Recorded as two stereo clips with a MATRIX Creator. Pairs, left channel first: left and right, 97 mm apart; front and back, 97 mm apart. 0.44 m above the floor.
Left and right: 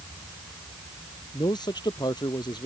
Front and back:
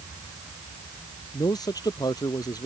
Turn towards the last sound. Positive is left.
turn(degrees=50)